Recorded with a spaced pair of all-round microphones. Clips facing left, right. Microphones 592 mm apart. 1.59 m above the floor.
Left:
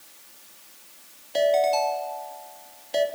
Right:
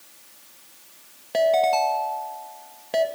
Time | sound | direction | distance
1.3 | a ringtone | 75° right (ahead or behind) | 1.9 m